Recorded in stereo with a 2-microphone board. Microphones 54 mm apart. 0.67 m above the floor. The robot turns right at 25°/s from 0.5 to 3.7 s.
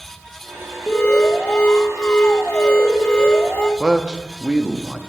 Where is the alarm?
20° left (ahead or behind), 1.6 m; by 3.7 s 15° left (ahead or behind), 1.6 m.